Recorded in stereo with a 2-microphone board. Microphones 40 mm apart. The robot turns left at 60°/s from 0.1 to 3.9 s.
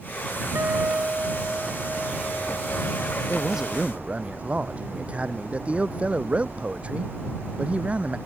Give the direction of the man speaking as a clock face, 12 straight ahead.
12 o'clock.